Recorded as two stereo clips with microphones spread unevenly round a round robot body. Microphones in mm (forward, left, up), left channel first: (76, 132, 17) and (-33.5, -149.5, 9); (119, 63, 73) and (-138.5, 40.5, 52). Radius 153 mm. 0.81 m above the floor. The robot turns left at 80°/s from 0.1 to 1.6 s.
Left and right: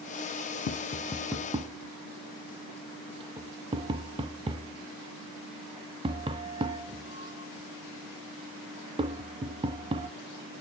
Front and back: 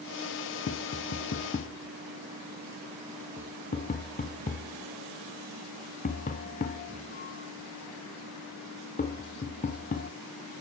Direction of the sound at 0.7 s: 30° left.